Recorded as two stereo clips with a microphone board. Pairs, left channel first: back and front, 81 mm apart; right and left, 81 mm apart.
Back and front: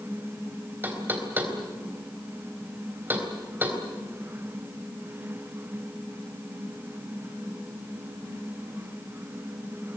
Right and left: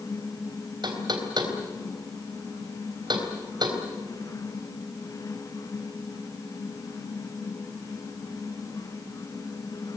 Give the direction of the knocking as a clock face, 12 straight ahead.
10 o'clock.